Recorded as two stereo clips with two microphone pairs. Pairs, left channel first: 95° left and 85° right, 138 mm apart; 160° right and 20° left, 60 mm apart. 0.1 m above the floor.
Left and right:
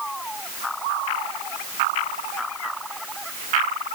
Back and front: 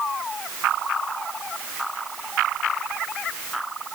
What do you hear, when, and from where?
Only background noise.